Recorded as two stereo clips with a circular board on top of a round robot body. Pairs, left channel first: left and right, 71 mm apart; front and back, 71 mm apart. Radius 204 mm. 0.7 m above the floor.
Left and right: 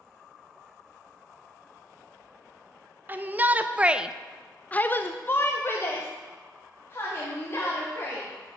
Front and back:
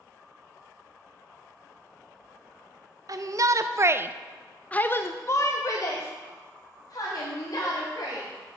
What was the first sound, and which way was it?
A shout, 150° right.